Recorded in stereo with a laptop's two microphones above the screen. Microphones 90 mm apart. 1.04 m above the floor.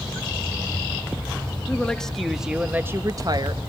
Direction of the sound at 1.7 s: 15° left (ahead or behind).